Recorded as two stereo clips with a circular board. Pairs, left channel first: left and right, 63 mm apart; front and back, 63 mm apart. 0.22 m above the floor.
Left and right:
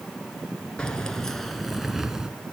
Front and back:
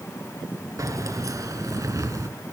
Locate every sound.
0.8 s keys jangling: 165° left, 1.9 m; by 2.3 s 165° right, 1.5 m